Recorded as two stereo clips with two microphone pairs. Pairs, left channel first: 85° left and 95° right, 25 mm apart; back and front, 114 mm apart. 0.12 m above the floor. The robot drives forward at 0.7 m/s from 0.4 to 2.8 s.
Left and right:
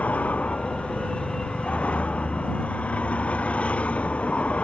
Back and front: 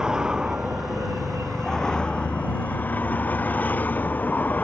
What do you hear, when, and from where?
0.0 s a vehicle: 80° left; by 4.6 s 105° left